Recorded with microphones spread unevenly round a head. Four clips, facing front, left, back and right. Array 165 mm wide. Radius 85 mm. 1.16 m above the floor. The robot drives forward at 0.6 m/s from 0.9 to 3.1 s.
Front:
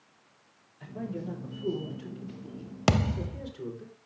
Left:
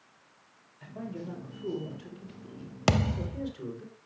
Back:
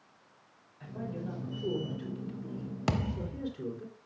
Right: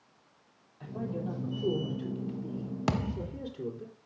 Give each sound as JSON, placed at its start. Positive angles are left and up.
{"t": 0.8, "sound": "a man speaking", "azimuth_deg": -90, "distance_m": 4.0}
{"t": 2.9, "sound": "a thud", "azimuth_deg": 65, "distance_m": 0.5}